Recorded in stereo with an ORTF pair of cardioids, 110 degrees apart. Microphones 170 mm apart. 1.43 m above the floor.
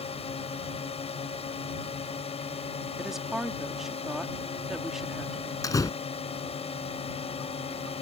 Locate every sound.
0.0 s a drone: 35° left
3.0 s a woman speaking: straight ahead
5.6 s a door slam: 20° left